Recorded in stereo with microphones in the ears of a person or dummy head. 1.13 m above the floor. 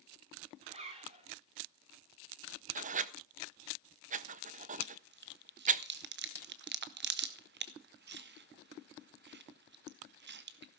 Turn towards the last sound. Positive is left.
turn(degrees=-50)  # may be behind; listen again after turning